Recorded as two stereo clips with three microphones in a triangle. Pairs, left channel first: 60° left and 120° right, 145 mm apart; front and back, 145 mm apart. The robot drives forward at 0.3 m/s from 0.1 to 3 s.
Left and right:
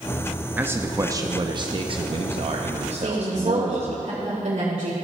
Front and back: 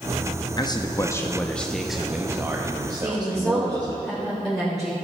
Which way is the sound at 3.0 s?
90° right.